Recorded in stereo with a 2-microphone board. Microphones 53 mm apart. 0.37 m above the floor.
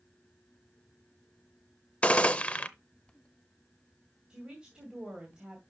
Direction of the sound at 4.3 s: 20° right (ahead or behind).